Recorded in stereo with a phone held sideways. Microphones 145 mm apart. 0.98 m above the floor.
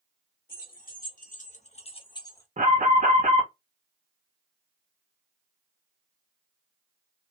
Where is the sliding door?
I don't hear a sliding door.